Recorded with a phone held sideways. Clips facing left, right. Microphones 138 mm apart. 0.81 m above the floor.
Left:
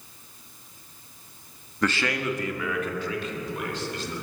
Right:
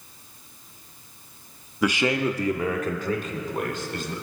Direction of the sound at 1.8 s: 5° right (ahead or behind).